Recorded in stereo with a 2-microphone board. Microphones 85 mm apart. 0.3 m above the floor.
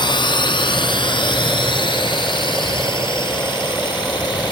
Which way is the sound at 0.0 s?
65° left (ahead or behind).